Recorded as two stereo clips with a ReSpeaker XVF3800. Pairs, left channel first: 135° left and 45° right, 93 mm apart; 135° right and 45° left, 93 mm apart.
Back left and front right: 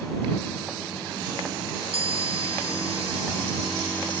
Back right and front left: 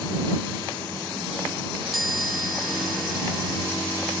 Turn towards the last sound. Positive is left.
turn(degrees=-45)